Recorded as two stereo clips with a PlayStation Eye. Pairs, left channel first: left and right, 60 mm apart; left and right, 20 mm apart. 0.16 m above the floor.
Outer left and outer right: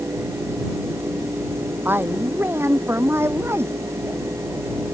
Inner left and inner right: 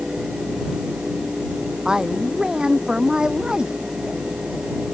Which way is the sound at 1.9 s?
35° right (ahead or behind).